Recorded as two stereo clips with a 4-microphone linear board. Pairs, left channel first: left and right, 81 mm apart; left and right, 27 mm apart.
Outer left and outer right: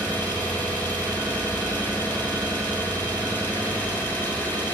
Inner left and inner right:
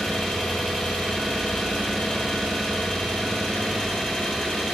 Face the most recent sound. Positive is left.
turn(degrees=20)  # may be behind; listen again after turning